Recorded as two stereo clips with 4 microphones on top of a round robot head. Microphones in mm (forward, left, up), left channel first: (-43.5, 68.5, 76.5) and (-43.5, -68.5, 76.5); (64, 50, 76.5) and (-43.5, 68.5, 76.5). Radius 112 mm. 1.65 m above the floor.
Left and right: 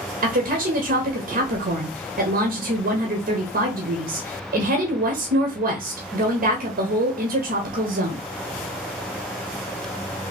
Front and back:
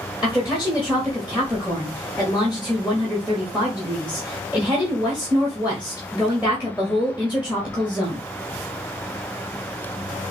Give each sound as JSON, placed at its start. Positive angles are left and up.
{"t": 0.2, "sound": "a woman speaking", "azimuth_deg": -110, "distance_m": 1.1}